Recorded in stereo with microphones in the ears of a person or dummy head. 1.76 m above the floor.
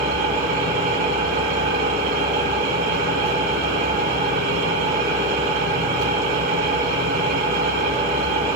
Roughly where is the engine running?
Right.